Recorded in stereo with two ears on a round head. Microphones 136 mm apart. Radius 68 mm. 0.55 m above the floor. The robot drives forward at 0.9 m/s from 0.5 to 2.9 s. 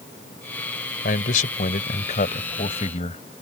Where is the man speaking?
60° left (ahead or behind); by 3.2 s 45° left (ahead or behind).